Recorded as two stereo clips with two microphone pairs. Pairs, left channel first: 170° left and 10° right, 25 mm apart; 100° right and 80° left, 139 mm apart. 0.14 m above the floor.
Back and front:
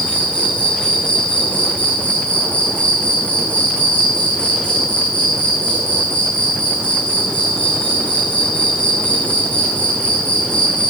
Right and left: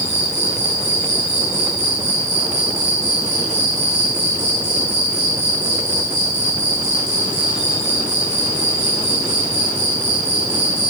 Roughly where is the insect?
Behind.